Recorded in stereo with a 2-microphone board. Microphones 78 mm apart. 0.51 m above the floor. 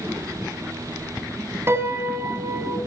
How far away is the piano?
About 3 m.